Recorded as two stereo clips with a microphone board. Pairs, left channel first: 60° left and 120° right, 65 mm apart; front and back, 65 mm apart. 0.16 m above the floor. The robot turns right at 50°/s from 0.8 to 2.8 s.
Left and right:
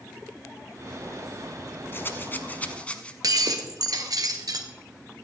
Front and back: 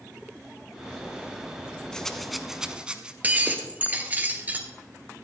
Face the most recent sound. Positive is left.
turn(degrees=-115)